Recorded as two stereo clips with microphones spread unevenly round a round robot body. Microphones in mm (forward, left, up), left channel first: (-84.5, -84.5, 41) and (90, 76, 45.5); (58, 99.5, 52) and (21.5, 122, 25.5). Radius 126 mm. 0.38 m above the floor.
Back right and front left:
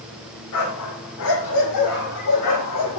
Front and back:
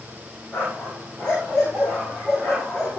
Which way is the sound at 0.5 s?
115° right.